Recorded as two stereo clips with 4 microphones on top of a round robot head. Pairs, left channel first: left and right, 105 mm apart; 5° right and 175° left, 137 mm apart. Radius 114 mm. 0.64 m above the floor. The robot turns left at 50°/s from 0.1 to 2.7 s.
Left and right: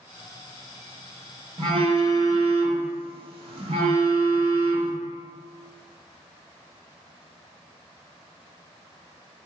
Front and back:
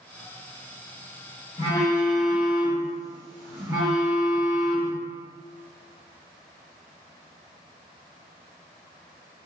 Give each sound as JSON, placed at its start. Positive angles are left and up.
{"t": 1.6, "sound": "a phone buzzing", "azimuth_deg": -60, "distance_m": 1.2}